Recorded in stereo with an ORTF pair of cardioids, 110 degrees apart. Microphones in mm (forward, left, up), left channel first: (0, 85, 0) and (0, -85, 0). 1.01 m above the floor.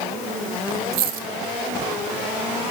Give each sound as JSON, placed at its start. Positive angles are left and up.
{"t": 0.9, "sound": "a dropped coin", "azimuth_deg": -65, "distance_m": 2.5}